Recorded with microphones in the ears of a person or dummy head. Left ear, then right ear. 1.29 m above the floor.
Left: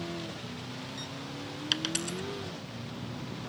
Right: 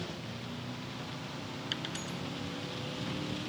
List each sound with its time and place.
1.7 s a dropped coin: 30° left (ahead or behind)